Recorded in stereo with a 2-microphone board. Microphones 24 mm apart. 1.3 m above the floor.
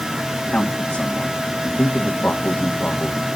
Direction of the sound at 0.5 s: 75° left (ahead or behind).